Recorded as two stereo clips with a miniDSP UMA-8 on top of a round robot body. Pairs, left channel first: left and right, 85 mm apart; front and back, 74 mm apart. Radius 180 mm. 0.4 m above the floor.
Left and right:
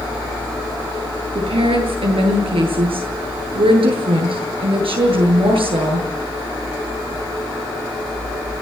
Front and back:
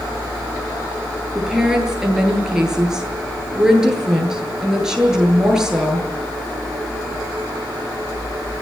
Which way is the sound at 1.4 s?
95° right.